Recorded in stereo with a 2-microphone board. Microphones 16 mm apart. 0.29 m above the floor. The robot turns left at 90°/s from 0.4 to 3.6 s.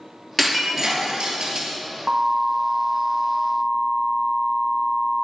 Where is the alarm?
65° right, 1.4 m; by 5.2 s 155° left, 1.4 m.